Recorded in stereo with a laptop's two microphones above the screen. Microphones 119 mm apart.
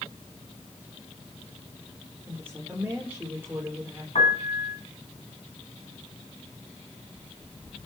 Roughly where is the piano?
Left.